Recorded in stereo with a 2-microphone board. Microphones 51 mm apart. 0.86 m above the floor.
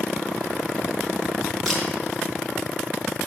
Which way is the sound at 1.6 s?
Centre (ahead or behind).